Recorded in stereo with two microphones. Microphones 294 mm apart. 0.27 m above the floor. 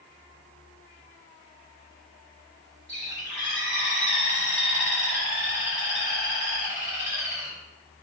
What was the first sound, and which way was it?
A bird, 40° left (ahead or behind).